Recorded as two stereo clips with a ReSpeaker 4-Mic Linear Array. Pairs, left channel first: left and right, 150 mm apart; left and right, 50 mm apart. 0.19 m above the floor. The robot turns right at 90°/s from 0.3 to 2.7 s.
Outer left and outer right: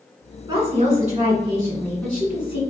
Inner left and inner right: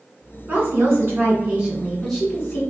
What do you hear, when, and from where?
0.5 s a woman speaking: 135° right, 1.6 m; by 2.6 s 55° left, 1.6 m